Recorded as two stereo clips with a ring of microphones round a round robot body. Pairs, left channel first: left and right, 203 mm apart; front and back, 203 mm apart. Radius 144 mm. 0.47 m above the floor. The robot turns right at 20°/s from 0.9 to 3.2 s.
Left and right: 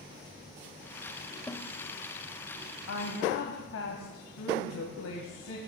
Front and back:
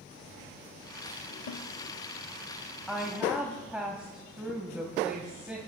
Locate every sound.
1.5 s a snare drum: 10° left, 0.9 m; by 1.7 s 15° left, 0.9 m
2.9 s a woman speaking: 90° left, 2.5 m; by 5.6 s 95° left, 2.5 m